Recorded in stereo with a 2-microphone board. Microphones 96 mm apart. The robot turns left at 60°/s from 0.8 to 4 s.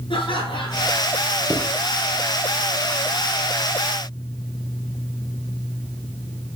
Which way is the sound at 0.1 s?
65° left (ahead or behind).